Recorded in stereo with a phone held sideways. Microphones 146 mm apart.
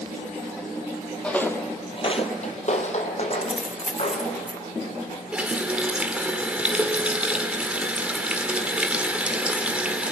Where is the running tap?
10° right (ahead or behind), 1.7 m.